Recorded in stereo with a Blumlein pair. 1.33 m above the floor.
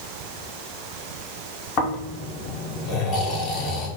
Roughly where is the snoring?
Ahead left.